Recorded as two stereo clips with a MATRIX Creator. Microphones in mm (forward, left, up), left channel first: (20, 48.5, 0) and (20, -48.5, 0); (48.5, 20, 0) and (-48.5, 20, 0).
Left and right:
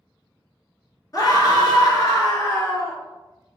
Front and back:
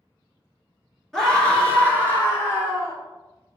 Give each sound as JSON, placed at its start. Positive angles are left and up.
{"t": 1.1, "sound": "a scream", "azimuth_deg": 85, "distance_m": 1.6}